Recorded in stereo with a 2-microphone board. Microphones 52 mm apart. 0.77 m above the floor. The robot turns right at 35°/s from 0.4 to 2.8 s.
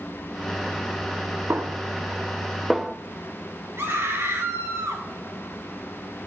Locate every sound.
1.5 s a snare drum: 50° right (ahead or behind), 0.9 m; by 3.0 s 5° right (ahead or behind), 0.9 m
3.8 s a scream: 60° right (ahead or behind), 6 m